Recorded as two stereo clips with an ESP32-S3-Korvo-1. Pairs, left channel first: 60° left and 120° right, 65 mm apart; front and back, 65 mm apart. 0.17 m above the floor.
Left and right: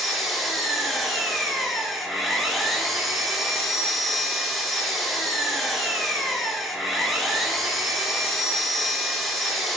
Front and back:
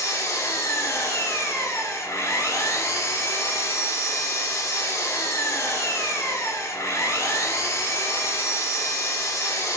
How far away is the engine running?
About 0.8 m.